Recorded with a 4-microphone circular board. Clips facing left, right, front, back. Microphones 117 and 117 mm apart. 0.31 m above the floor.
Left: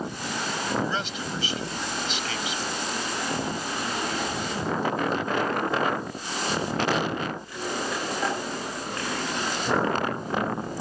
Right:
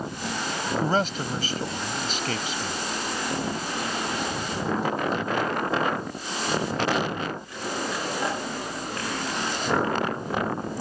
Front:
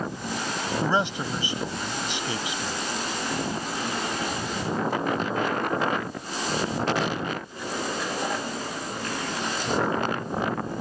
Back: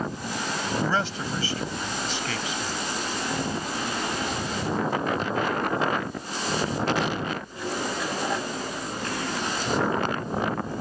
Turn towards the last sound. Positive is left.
turn(degrees=-65)